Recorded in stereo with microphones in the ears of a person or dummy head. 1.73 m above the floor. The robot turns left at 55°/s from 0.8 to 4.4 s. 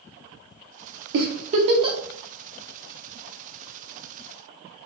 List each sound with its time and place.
1.1 s a giggle: 65° right (ahead or behind), 0.5 m; by 2.0 s 20° right (ahead or behind), 0.5 m